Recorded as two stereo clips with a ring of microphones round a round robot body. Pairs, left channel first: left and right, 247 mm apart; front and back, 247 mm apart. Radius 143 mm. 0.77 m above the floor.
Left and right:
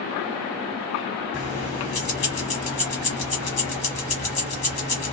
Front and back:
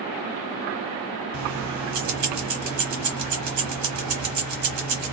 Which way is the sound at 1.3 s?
155° left.